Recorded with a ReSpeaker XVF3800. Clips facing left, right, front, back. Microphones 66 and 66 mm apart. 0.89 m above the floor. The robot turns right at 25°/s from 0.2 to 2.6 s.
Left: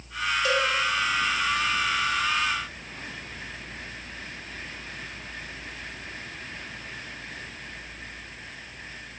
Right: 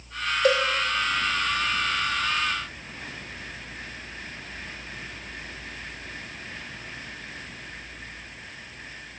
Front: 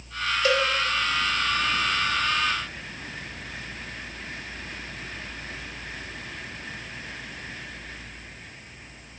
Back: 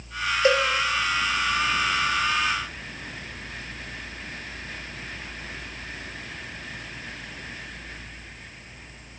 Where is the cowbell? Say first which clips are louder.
Right 5 dB, back 3 dB; 120° right, 1.9 m; by 0.6 s 115° right, 1.9 m.